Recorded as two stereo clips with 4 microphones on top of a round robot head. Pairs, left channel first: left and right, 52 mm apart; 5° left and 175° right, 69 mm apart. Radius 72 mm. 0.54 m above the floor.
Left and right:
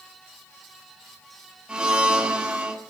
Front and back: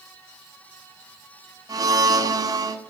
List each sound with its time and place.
1.7 s a blender: 165° right, 2.0 m